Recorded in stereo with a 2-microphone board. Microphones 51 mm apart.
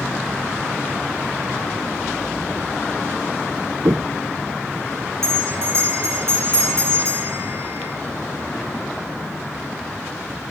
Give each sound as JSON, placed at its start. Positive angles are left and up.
{"t": 3.9, "sound": "footsteps", "side_deg": -65, "distance_m": 0.5}
{"t": 5.2, "sound": "a bell", "side_deg": -55, "distance_m": 5.0}